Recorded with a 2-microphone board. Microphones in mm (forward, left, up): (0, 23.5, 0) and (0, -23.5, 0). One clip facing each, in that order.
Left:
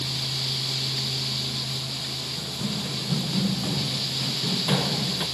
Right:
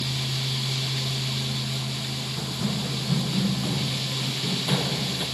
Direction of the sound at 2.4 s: 15° right (ahead or behind).